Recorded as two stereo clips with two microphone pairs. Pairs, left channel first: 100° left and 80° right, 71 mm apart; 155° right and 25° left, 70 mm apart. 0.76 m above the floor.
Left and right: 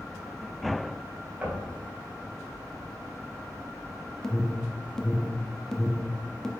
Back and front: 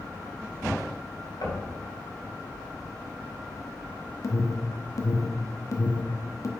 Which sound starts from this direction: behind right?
Knocking, at 1.4 s.